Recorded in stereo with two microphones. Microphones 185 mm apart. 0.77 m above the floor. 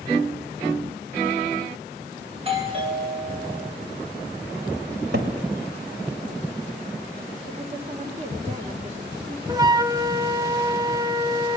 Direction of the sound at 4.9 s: 70° right (ahead or behind).